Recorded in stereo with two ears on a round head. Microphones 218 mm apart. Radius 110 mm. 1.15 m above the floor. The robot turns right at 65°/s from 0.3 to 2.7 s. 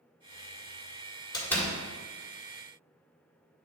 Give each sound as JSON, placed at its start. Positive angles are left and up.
{"t": 1.3, "sound": "a door slam", "side_deg": 20, "distance_m": 1.7}